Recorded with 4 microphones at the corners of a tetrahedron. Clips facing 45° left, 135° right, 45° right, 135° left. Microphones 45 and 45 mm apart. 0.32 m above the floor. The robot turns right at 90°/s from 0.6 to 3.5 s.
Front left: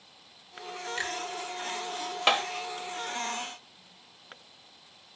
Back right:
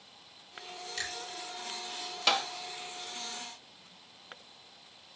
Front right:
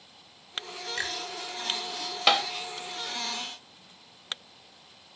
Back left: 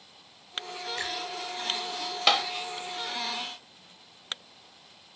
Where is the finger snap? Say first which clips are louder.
Front left 5 dB, front right 2 dB; 20° right, 4 m; by 1.2 s straight ahead, 4 m.